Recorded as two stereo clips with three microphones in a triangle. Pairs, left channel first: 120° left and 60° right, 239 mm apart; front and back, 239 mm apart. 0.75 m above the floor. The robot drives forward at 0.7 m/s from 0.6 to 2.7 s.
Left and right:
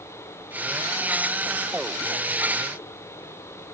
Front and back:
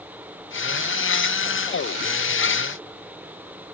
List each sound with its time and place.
Only background noise.